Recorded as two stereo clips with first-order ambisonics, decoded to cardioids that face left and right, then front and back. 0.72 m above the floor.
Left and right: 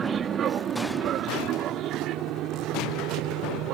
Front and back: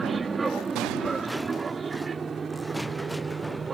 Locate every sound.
0.0 s an aircraft: 115° right; by 3.8 s 110° right